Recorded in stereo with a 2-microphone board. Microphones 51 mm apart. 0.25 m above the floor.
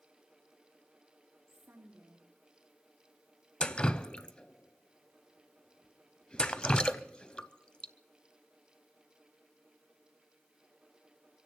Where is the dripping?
20° left (ahead or behind), 0.5 m.